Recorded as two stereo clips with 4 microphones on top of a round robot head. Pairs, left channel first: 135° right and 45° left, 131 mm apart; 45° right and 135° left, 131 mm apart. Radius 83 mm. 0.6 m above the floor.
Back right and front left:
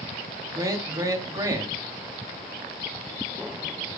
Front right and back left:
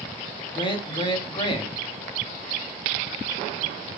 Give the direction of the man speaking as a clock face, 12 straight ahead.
12 o'clock.